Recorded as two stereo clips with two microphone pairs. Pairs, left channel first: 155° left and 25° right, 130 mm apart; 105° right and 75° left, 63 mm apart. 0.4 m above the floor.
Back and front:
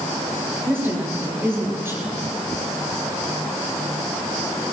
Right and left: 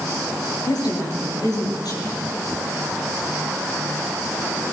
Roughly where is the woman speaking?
Right.